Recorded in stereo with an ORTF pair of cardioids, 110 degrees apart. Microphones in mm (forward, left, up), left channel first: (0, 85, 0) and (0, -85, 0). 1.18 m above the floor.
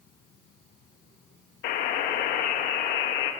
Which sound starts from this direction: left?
A buzzer, at 1.6 s.